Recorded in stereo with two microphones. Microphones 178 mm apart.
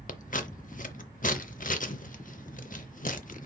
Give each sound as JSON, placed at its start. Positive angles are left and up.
{"t": 0.1, "sound": "scissors", "side_deg": 50, "distance_m": 0.5}